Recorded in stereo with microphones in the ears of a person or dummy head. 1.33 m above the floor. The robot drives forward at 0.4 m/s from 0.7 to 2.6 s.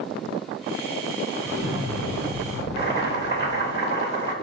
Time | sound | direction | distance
1.4 | an explosion | 10° left (ahead or behind) | 3.5 m
2.8 | boiling | 40° right (ahead or behind) | 3 m